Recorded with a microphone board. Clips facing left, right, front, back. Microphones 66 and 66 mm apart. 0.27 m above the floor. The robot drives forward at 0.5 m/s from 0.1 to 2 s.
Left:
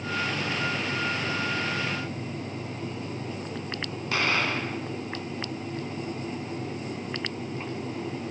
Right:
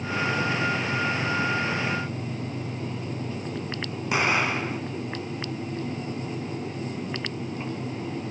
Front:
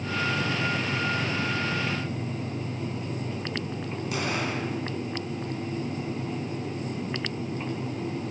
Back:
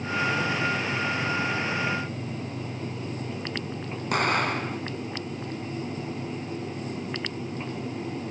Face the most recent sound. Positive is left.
turn(degrees=-160)